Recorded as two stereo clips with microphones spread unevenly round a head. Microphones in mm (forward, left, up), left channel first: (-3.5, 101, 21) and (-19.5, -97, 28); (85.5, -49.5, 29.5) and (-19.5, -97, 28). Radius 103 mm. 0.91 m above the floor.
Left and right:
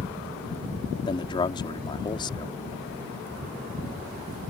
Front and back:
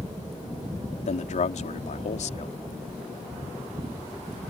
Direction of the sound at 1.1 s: 20° left.